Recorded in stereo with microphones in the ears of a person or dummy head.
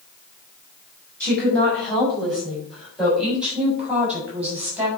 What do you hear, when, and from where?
1.2 s a woman speaking: 5° left (ahead or behind), 7 m; by 4.9 s 10° right (ahead or behind), 7.5 m